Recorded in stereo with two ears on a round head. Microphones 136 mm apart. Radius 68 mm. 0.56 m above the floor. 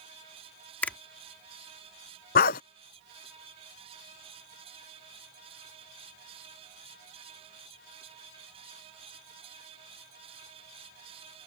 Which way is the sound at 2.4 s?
70° left (ahead or behind).